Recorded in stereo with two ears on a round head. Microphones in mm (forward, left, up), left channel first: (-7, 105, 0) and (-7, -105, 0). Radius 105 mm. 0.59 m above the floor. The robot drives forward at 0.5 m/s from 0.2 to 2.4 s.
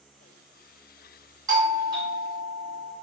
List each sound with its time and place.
1.5 s a doorbell: 15° right (ahead or behind), 1.1 m; by 2.9 s 20° right (ahead or behind), 1.1 m